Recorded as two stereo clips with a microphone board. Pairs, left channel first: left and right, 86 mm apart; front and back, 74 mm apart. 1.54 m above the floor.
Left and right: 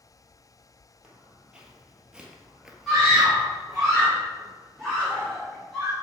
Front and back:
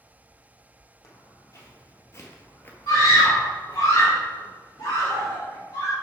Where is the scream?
5° left, 3.5 m.